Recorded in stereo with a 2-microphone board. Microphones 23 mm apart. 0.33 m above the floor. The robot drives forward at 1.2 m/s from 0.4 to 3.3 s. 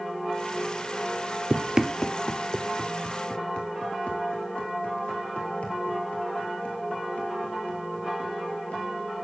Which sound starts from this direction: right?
Running footsteps, at 1.5 s.